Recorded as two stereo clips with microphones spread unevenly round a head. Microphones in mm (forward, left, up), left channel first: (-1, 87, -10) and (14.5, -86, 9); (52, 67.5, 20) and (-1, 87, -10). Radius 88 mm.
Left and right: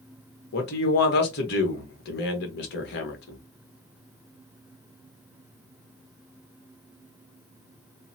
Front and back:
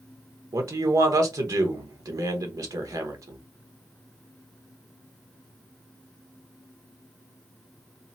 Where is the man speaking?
130° left, 1.1 m.